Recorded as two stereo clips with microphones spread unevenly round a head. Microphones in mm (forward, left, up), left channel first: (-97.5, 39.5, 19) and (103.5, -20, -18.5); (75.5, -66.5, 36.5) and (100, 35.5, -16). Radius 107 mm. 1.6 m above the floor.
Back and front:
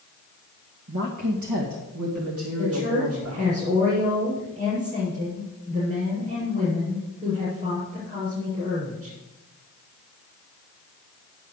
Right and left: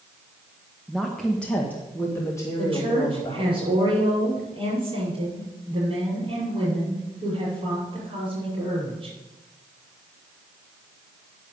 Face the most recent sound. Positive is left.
turn(degrees=40)